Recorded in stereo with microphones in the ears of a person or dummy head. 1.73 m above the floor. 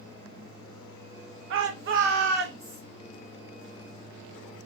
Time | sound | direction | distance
1.5 | a shout | 70° right (ahead or behind) | 1.0 m